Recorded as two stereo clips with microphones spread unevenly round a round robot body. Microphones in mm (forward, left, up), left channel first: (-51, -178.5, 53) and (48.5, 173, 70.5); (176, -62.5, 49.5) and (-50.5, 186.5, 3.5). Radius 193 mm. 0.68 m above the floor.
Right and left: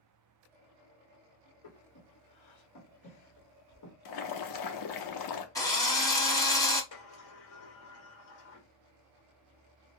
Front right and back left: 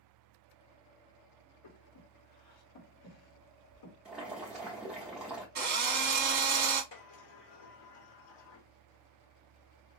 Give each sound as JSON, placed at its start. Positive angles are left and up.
{"t": 1.6, "sound": "breathing", "azimuth_deg": -75, "distance_m": 1.4}
{"t": 4.0, "sound": "boiling", "azimuth_deg": -140, "distance_m": 0.8}
{"t": 5.5, "sound": "a drill", "azimuth_deg": 180, "distance_m": 1.2}
{"t": 6.9, "sound": "a sliding door", "azimuth_deg": -60, "distance_m": 1.8}